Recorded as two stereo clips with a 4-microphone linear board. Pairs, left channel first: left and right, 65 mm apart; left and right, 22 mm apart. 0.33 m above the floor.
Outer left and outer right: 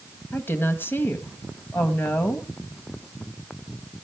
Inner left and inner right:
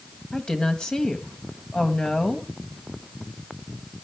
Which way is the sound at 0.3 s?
35° left (ahead or behind).